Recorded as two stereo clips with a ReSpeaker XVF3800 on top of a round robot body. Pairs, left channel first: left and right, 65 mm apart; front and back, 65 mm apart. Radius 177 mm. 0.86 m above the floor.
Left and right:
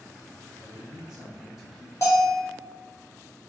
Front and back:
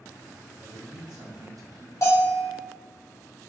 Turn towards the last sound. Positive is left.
turn(degrees=45)